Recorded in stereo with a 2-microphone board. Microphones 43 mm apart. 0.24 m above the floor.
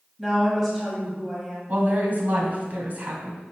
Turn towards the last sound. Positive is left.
turn(degrees=-45)  # may be behind; listen again after turning